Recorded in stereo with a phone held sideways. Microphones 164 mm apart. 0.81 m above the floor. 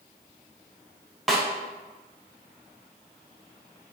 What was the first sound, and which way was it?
A snare drum, centre (ahead or behind).